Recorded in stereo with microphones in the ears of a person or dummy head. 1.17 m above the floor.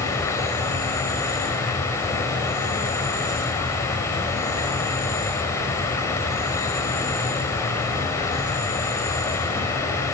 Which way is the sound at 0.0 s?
15° left (ahead or behind).